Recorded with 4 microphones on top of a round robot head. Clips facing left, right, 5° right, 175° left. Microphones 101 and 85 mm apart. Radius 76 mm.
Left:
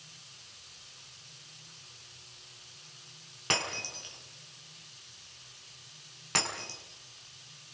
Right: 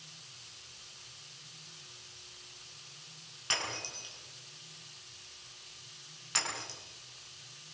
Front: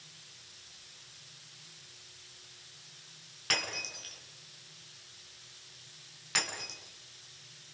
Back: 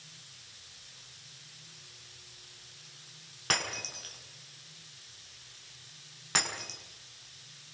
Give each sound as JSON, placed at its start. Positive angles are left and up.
{"t": 3.5, "sound": "breaking glass", "azimuth_deg": 120, "distance_m": 5.5}